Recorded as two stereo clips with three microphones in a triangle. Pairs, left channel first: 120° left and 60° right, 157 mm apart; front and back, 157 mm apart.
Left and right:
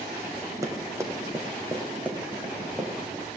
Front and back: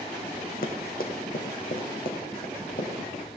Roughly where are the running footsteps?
Ahead.